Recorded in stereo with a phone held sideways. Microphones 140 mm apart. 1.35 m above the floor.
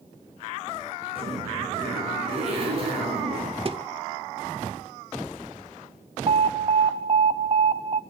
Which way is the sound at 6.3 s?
40° right (ahead or behind).